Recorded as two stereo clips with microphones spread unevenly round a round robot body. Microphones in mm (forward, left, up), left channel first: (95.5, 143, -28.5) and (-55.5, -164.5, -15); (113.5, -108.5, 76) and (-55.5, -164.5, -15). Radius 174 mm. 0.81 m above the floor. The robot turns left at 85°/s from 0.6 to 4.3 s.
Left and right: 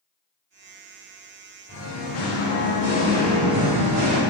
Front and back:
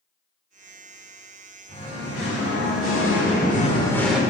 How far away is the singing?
About 1.5 m.